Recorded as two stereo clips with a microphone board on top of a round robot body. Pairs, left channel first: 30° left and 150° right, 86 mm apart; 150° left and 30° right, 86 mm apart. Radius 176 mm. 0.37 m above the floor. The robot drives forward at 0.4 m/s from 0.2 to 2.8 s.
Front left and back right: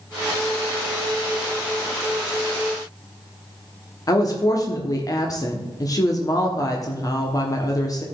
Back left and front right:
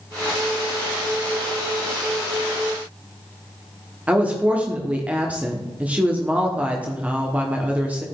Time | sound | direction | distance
4.1 | a woman speaking | 35° left | 1.5 m